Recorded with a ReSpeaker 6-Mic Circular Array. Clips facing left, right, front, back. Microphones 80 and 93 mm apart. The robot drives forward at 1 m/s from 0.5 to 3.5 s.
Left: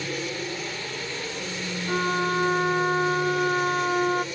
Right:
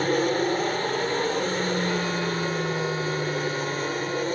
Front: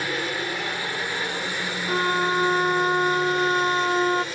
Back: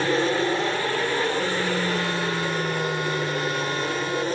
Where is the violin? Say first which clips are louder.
Left 2 dB, front 3 dB; 45° left.